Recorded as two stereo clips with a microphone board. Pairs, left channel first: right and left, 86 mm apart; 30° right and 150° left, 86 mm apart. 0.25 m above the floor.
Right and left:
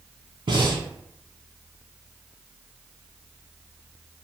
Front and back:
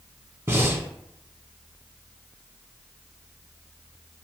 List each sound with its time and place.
0.5 s breathing: 90° left, 0.8 m